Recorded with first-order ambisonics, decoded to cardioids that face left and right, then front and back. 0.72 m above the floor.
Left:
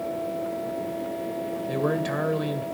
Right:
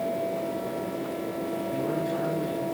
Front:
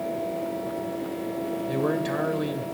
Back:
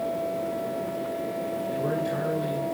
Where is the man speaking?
60° left, 3 m.